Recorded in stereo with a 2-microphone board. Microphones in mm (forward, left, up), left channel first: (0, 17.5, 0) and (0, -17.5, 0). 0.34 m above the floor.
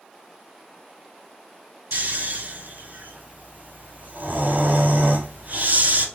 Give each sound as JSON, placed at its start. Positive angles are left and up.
{"t": 1.9, "sound": "snoring", "side_deg": -55, "distance_m": 0.8}